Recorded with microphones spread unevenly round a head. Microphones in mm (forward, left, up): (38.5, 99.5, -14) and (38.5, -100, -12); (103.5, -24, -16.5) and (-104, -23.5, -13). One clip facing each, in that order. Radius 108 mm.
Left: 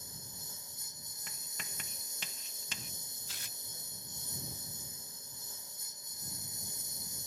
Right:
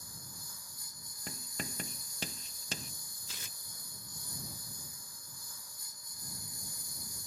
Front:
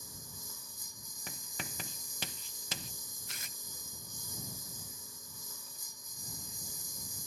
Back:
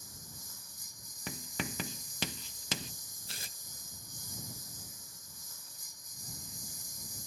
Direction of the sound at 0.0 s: 25° left.